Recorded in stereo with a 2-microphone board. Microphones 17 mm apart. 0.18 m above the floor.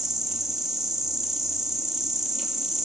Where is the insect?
15° right (ahead or behind), 0.8 m.